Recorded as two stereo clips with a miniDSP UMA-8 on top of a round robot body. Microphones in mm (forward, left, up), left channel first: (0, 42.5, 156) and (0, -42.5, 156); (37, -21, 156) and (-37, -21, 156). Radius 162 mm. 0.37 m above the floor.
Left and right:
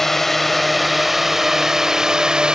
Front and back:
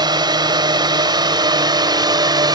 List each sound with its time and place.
0.0 s a drone: 175° left; by 2.6 s 170° right